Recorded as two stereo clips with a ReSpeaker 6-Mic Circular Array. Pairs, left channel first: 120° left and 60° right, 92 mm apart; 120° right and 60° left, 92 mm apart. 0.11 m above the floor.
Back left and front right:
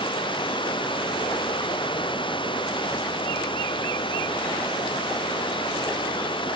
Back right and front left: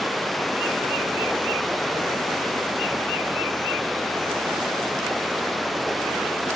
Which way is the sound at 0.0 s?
150° left.